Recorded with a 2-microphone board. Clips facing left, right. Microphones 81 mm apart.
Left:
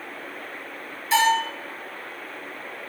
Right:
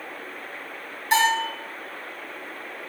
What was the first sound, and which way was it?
A bell, 60° right (ahead or behind).